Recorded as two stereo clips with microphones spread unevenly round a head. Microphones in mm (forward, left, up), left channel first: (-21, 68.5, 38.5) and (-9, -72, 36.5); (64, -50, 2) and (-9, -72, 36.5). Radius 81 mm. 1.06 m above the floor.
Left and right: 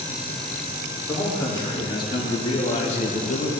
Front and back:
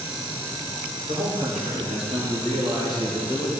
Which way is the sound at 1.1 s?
160° left.